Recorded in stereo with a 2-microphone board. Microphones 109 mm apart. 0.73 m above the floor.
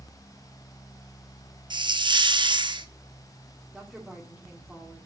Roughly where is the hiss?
Right.